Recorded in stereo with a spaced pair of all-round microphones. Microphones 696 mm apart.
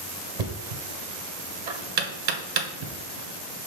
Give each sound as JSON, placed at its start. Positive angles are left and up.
{"t": 0.4, "sound": "knocking", "side_deg": -75, "distance_m": 0.9}